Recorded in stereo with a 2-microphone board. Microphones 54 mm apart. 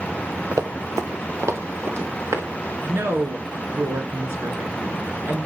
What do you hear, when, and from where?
0.5 s running footsteps: 85° right, 1.6 m; by 2.5 s 60° right (ahead or behind), 3 m
2.9 s a woman speaking: 55° right (ahead or behind), 2.5 m